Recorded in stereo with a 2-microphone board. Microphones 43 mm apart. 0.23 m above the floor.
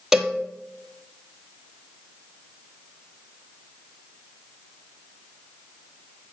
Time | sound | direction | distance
0.1 | a cowbell | 5° right (ahead or behind) | 1.2 m